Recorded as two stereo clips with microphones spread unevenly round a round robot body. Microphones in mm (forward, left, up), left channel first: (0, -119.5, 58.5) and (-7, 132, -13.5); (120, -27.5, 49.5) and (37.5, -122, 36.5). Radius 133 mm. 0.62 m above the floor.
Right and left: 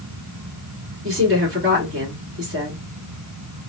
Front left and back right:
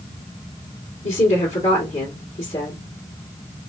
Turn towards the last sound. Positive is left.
turn(degrees=75)